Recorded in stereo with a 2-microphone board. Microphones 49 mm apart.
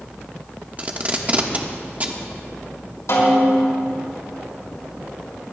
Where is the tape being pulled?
30° right (ahead or behind), 1.2 m.